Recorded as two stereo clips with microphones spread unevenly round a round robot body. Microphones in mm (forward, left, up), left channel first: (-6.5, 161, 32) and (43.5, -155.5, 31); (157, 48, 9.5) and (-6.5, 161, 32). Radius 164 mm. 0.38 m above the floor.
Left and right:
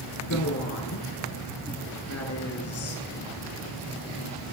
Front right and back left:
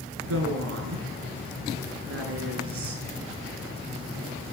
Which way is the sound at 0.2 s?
150° left.